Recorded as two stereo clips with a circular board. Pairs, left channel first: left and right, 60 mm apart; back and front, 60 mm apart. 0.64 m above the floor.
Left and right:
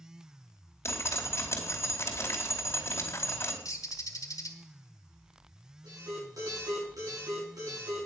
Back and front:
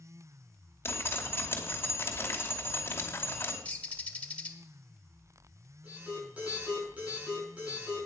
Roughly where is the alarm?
Right.